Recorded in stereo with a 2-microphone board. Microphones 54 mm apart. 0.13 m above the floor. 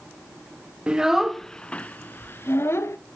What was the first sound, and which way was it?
A child speaking, 20° right (ahead or behind).